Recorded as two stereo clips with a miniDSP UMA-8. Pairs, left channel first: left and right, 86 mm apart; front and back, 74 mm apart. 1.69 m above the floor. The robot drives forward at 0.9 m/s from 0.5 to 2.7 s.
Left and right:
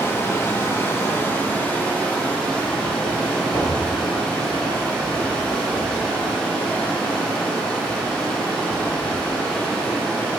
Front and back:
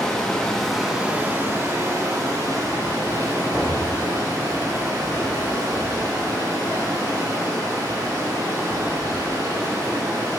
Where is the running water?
70° left, 1.1 m; by 10.4 s 165° left, 2 m.